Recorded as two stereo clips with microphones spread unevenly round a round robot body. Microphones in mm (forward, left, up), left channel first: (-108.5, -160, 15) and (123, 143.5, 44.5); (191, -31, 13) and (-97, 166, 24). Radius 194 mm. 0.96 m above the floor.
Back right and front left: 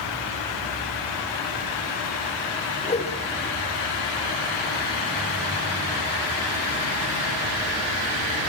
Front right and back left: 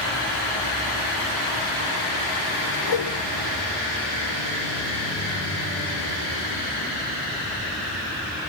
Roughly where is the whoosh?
Ahead right.